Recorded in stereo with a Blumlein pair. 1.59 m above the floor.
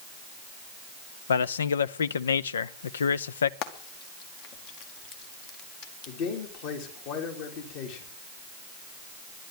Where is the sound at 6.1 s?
45° left, 3 m.